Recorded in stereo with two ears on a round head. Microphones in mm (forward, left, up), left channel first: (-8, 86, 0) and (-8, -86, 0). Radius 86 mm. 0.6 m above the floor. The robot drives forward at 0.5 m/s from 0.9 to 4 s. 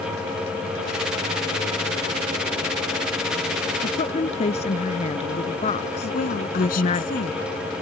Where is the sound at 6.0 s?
45° left (ahead or behind).